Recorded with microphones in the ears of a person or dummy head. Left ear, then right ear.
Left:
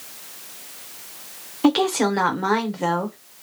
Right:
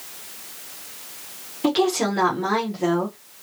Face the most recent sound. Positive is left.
turn(degrees=30)  # may be behind; listen again after turning